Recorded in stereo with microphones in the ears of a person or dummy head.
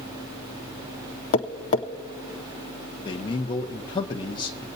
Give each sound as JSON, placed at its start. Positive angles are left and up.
{"t": 1.3, "sound": "tapping", "side_deg": 35, "distance_m": 0.6}
{"t": 3.0, "sound": "a man speaking", "side_deg": 30, "distance_m": 0.7}